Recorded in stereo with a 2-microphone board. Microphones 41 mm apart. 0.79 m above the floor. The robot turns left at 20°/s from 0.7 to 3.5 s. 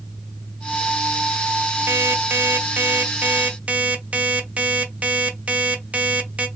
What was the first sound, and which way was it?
An alarm clock, 110° right.